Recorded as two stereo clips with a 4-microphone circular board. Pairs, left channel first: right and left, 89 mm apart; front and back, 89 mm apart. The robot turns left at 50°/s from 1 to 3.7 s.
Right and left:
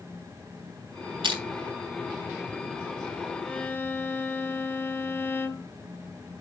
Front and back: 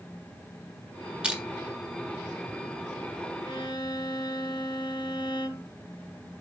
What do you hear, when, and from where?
1.2 s crushing: 105° left, 1.7 m; by 1.4 s 95° left, 1.7 m
3.5 s a violin: 10° right, 1.0 m; by 5.7 s 20° right, 1.0 m